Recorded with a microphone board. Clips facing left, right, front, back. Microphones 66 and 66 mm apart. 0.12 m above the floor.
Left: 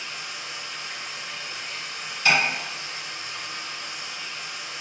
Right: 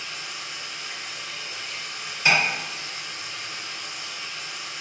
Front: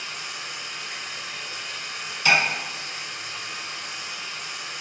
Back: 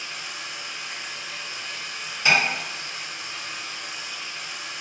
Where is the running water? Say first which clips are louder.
Even, even; 30° left, 1.1 m.